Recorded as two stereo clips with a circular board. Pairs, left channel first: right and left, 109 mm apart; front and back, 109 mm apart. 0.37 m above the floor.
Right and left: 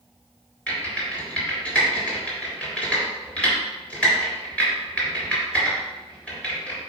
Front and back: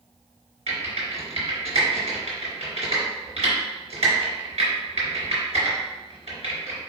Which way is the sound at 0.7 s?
170° right.